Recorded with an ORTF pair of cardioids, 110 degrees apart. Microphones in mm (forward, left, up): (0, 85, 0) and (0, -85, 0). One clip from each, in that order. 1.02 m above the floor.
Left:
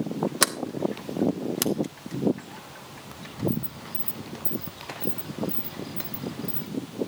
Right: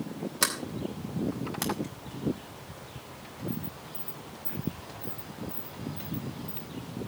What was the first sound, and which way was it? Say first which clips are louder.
A sliding door: left 3 dB; 50° left.